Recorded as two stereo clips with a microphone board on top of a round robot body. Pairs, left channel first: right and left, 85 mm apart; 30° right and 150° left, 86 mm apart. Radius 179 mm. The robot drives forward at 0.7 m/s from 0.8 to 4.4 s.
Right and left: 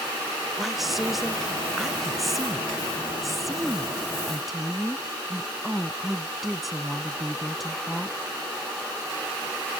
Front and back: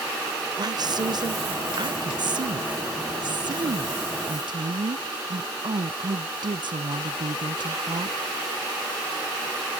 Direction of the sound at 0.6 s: Straight behind.